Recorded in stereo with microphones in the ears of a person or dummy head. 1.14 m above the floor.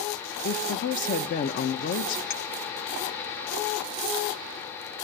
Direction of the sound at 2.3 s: 50° left (ahead or behind).